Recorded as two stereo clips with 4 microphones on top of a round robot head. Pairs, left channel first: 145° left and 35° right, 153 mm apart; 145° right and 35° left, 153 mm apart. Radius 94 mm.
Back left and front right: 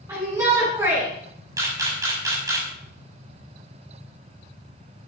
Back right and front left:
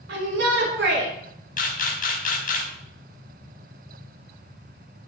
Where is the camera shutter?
105° right, 5.5 m.